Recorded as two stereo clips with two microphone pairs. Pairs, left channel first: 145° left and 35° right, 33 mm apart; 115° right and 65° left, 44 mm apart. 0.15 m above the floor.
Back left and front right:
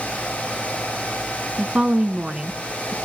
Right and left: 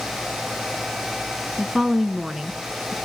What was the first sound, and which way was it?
A woman speaking, 10° right.